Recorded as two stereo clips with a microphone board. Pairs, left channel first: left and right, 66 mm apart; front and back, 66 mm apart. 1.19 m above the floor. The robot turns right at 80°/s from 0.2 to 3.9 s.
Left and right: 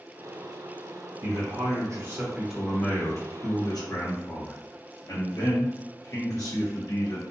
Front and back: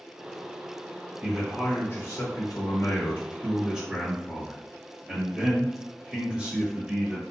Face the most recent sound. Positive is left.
turn(degrees=110)